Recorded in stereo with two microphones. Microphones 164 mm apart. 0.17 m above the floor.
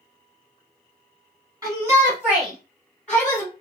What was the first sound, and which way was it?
A shout, 20° right (ahead or behind).